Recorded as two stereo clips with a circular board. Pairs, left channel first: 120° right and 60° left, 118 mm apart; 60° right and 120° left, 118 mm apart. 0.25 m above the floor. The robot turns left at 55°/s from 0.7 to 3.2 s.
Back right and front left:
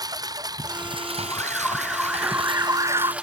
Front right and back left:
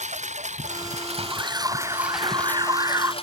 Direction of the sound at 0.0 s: 115° left.